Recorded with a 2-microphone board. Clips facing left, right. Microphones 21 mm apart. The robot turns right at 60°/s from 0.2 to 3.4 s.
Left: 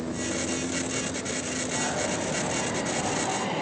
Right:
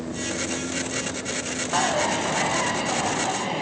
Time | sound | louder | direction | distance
1.7 | a dropped coin | right 8 dB | 120° right | 1.8 m